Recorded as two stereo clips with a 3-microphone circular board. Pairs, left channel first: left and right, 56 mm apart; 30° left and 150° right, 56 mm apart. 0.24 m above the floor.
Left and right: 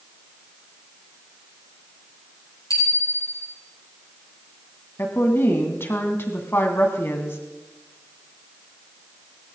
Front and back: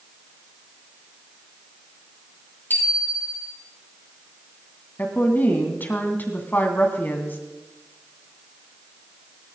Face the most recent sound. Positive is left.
turn(degrees=70)